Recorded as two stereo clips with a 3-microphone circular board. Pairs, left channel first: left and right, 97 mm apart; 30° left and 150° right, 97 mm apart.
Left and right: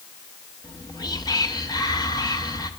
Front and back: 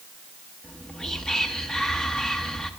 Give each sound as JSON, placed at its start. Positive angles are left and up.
{"t": 0.6, "sound": "whispering", "azimuth_deg": 110, "distance_m": 0.9}